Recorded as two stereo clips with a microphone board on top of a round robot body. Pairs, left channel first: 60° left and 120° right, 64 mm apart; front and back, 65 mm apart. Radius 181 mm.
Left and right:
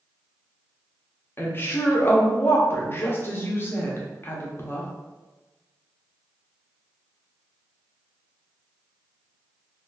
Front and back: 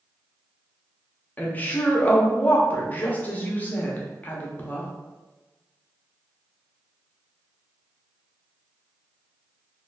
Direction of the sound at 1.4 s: 40° left.